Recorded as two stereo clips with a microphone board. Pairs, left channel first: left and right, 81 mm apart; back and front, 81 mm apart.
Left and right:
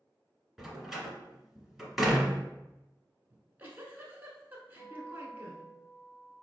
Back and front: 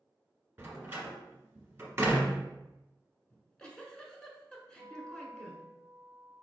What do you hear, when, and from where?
0.6 s a door slam: 5° right, 1.0 m
3.3 s a giggle: 110° right, 0.8 m
4.8 s a guitar: 125° right, 1.0 m